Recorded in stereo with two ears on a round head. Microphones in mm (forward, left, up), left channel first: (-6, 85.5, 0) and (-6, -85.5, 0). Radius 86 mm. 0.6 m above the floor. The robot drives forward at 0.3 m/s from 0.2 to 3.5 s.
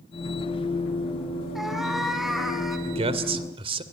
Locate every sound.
1.6 s a cat meowing: centre (ahead or behind), 2.5 m
2.9 s a man speaking: 30° right (ahead or behind), 2 m